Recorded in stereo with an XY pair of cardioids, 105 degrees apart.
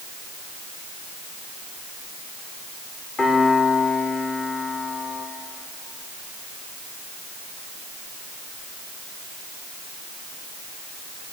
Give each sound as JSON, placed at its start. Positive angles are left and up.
{"t": 3.2, "sound": "a piano", "azimuth_deg": 30, "distance_m": 4.5}